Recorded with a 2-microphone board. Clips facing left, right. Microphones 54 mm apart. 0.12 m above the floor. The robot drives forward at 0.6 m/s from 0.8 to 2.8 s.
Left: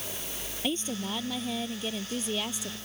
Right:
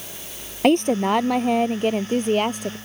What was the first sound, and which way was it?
A woman speaking, 60° right (ahead or behind).